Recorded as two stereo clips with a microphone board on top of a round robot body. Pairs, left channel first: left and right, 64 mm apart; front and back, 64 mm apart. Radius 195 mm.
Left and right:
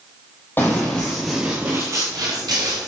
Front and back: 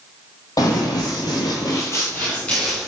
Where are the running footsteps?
30° left, 1.1 m; by 2.9 s 85° right, 1.2 m.